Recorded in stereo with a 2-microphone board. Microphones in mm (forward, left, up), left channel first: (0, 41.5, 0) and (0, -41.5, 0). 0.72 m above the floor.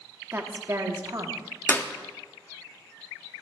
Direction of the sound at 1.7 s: 25° left (ahead or behind).